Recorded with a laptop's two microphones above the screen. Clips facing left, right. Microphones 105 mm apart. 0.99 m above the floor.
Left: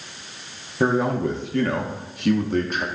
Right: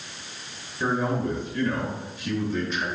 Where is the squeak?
No squeak in this recording.